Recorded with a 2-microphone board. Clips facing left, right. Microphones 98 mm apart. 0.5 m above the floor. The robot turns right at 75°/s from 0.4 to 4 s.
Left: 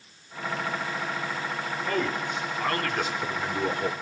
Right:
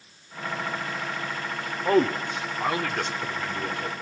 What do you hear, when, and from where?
1.9 s a man speaking: 80° right, 1.3 m; by 3.9 s 75° left, 1.3 m